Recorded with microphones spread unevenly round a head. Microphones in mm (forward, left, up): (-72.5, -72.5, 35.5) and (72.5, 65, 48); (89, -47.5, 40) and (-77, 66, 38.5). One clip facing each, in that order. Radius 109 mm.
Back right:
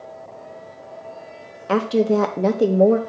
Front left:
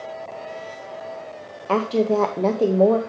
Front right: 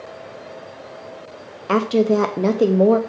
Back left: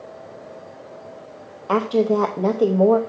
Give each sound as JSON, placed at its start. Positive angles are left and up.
{"t": 1.7, "sound": "a woman speaking", "azimuth_deg": -65, "distance_m": 0.5}